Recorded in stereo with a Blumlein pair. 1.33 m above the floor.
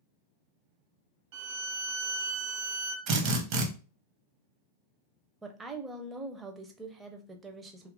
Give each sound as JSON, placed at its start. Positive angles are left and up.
{"t": 1.3, "sound": "a violin", "azimuth_deg": -50, "distance_m": 0.6}
{"t": 3.1, "sound": "a drill", "azimuth_deg": -40, "distance_m": 0.9}
{"t": 5.4, "sound": "a woman speaking", "azimuth_deg": -15, "distance_m": 0.6}